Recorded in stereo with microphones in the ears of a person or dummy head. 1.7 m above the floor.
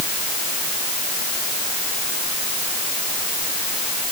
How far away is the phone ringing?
I don't hear a phone ringing.